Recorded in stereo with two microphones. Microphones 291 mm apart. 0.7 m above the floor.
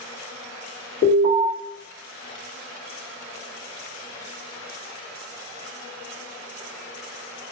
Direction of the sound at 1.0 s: 30° left (ahead or behind).